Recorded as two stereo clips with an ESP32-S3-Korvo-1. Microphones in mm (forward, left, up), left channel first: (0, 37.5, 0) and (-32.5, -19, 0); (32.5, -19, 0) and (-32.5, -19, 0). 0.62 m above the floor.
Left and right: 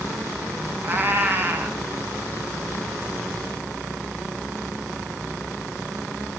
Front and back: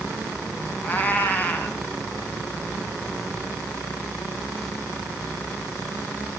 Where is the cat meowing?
65° right, 1.6 m.